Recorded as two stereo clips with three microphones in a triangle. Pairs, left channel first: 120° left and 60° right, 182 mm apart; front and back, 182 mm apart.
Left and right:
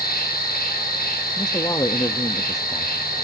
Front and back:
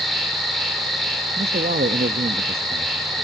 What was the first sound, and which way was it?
An insect, 90° left.